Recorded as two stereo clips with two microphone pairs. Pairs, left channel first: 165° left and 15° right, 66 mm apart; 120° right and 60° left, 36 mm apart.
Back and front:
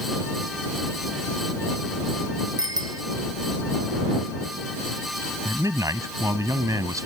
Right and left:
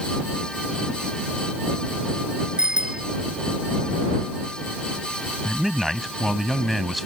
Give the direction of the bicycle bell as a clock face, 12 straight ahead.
12 o'clock.